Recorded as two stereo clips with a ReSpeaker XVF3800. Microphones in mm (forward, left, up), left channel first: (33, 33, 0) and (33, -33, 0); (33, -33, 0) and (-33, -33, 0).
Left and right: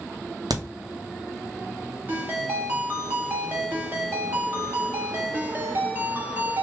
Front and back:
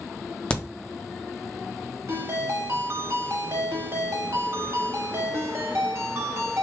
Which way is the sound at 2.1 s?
145° right.